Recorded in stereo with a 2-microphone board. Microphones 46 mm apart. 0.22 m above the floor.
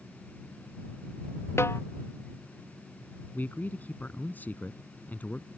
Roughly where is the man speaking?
Left.